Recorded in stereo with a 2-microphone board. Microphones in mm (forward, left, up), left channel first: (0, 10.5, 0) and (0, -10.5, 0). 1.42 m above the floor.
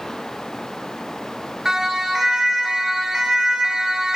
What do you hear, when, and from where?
1.6 s a siren: 25° right (ahead or behind), 4.5 m; by 4.2 s 35° right (ahead or behind), 1.5 m